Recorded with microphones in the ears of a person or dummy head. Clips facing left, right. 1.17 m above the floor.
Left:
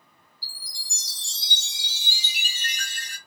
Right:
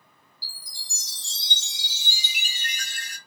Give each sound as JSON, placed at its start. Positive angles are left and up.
{"t": 0.4, "sound": "a chime", "side_deg": 45, "distance_m": 1.8}